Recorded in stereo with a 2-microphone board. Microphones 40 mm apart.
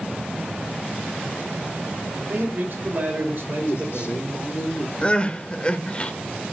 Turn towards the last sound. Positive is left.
turn(degrees=30)  # may be behind; listen again after turning